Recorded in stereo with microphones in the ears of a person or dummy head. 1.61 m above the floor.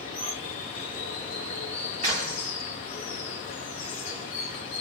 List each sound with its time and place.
0.0 s running water: 30° left (ahead or behind), 1.1 m
2.0 s a clap: 40° right (ahead or behind), 3.5 m